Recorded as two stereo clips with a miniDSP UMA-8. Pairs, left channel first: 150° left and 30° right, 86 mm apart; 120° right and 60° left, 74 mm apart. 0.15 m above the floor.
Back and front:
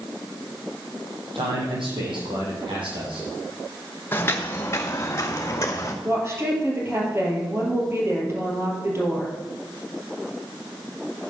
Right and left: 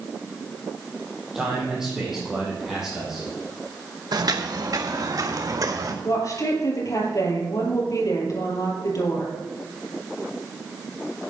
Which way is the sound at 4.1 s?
85° left.